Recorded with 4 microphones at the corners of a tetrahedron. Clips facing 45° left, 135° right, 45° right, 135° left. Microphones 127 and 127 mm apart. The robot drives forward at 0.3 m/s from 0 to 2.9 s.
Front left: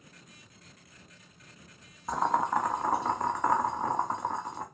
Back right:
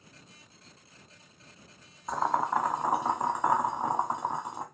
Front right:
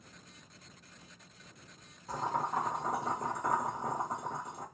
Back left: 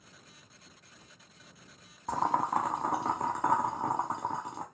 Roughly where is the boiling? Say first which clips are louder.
Even, back left 5 dB; behind left.